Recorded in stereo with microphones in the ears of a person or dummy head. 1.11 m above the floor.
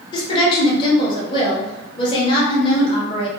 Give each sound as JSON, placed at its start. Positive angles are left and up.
{"t": 0.1, "sound": "a woman speaking", "side_deg": 30, "distance_m": 1.0}